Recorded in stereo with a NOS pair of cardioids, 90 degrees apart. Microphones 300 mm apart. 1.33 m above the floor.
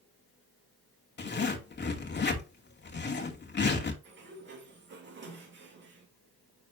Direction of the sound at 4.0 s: 40° right.